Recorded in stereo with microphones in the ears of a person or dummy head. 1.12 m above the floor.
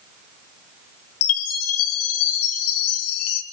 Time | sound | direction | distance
1.2 | a chime | 75° left (ahead or behind) | 2.5 m